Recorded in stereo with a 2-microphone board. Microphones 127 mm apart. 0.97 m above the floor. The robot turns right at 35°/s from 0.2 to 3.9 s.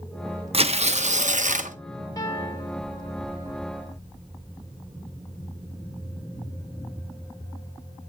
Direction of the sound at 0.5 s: 130° right.